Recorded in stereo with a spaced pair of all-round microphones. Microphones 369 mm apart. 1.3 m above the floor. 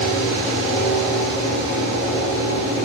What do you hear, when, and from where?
0.0 s a fan: 35° left (ahead or behind), 1.1 m